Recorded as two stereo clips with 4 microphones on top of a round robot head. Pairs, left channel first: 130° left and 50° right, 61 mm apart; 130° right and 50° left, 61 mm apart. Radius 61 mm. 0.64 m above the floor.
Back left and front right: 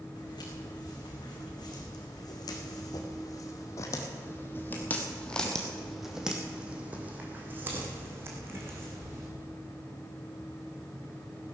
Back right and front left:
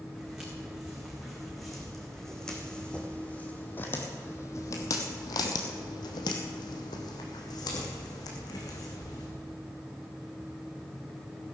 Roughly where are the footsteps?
Behind left.